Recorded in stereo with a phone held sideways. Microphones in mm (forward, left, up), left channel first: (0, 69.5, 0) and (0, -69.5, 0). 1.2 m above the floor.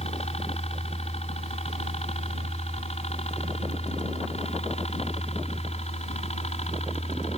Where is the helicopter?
50° left (ahead or behind).